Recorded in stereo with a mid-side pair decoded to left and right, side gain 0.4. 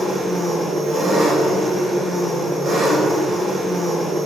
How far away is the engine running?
About 1.1 m.